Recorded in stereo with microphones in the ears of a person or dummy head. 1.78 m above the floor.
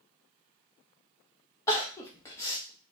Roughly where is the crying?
Centre.